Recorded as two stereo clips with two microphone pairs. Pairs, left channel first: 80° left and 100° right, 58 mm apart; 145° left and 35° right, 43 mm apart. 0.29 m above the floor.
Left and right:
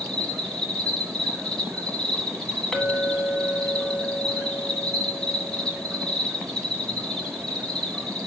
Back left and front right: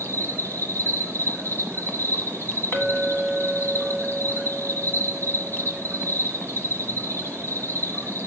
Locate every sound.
0.0 s an insect: 155° left, 1.6 m
2.7 s a clink: 155° left, 1.4 m